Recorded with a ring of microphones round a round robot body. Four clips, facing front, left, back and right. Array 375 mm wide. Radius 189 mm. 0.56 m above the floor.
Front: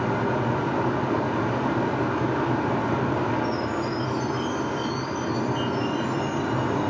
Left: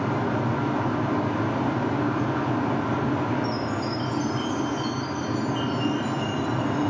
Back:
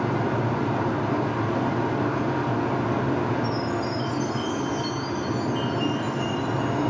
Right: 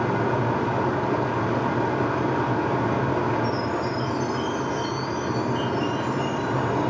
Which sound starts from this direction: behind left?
A chime, at 3.4 s.